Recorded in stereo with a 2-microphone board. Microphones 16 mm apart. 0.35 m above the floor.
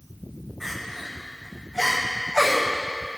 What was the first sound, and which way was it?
Crying, 10° left (ahead or behind).